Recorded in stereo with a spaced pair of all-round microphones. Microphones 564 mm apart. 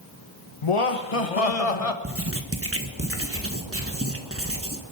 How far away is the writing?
About 1.3 m.